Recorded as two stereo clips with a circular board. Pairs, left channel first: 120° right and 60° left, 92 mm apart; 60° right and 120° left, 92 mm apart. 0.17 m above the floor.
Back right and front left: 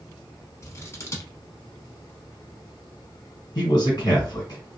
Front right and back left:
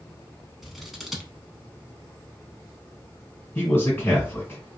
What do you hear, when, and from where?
0.6 s scissors: 150° right, 0.6 m
3.5 s a man speaking: 115° right, 2.0 m